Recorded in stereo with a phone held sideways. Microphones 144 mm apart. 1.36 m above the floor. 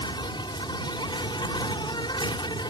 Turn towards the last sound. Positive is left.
turn(degrees=30)  # may be behind; listen again after turning